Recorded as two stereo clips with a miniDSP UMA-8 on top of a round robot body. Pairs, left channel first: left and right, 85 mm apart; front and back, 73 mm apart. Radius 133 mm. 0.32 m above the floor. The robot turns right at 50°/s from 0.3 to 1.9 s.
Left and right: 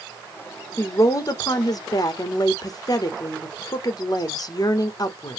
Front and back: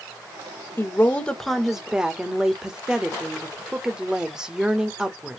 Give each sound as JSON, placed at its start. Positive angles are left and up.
{"t": 0.8, "sound": "a woman speaking", "azimuth_deg": 50, "distance_m": 1.3}